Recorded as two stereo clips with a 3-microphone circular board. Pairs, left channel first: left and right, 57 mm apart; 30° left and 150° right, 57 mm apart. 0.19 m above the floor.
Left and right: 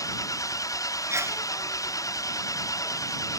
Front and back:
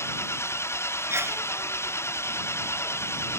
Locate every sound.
0.0 s an engine running: 75° left
1.1 s a sneeze: 115° right